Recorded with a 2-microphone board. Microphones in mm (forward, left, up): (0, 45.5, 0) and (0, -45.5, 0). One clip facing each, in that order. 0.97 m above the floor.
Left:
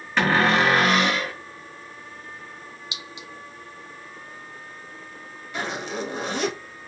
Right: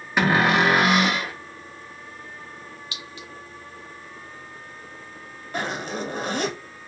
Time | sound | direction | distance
0.2 | a cupboard door | 15° right (ahead or behind) | 0.8 m
2.9 | a clink | 20° left (ahead or behind) | 0.6 m
5.5 | a zipper | 50° right (ahead or behind) | 1.1 m